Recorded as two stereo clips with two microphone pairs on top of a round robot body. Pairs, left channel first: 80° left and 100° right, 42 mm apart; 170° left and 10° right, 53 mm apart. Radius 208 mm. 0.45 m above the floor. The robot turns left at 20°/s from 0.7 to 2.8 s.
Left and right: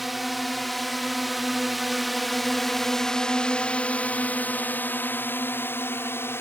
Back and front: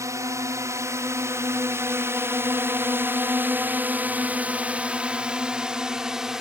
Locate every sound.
0.0 s a drone: 15° right; by 6.4 s 75° left